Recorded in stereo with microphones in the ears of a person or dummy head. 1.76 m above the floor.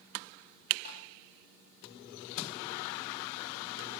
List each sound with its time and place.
0.8 s tapping: 60° left (ahead or behind), 8.5 m